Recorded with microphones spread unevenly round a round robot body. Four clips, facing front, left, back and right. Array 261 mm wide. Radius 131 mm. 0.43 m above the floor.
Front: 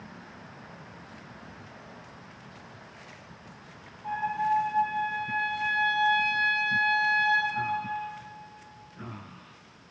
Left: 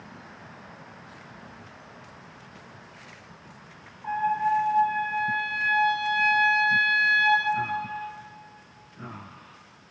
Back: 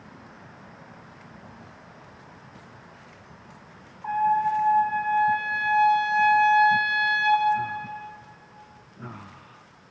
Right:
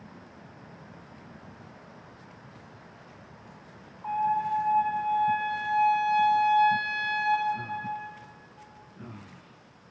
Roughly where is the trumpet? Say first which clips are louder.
Left 2 dB, back 6 dB; behind.